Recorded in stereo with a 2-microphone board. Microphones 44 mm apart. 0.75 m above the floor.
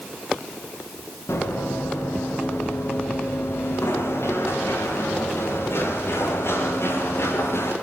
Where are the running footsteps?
85° left, 10 m; by 7.7 s 75° left (ahead or behind), 11 m.